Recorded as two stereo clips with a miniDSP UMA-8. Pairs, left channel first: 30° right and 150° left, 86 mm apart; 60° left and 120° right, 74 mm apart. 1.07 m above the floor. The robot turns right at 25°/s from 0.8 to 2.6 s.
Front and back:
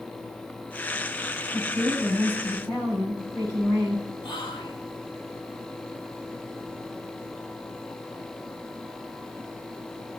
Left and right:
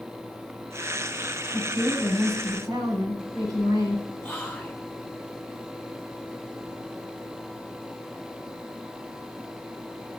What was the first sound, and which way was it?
A woman speaking, 115° right.